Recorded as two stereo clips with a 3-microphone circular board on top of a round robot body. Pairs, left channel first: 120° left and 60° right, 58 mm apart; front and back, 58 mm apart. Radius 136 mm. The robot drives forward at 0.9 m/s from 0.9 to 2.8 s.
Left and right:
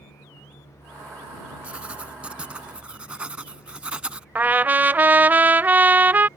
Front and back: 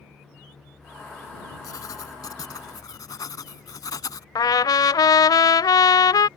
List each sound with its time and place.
1.6 s writing: 10° left
4.3 s a trumpet: 5° left